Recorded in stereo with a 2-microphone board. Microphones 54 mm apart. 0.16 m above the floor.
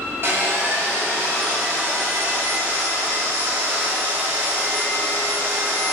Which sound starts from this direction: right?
Sawing, at 0.2 s.